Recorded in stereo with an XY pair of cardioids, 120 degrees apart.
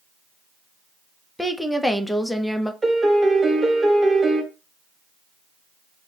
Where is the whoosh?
No whoosh in this recording.